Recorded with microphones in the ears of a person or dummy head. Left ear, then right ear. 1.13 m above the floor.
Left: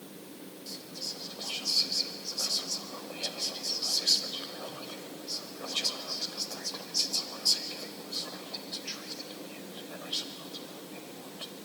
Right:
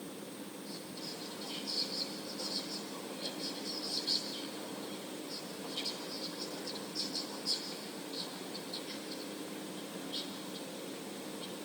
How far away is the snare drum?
I don't hear a snare drum.